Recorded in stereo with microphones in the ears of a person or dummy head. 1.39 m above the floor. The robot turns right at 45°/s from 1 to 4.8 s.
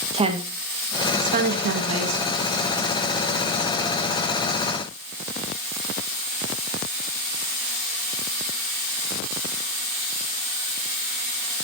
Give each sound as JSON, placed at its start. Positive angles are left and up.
{"t": 0.1, "sound": "a woman speaking", "side_deg": -30, "distance_m": 1.5}